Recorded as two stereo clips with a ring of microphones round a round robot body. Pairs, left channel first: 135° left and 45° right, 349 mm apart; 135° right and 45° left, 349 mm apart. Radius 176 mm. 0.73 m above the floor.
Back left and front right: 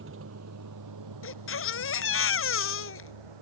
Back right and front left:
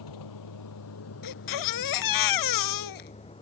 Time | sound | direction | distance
0.0 | a vehicle | 105° right | ?
1.2 | a baby crying | 170° right | ?